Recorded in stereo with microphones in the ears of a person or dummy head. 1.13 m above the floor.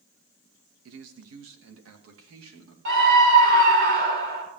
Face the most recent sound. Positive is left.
turn(degrees=-60)  # may be behind; listen again after turning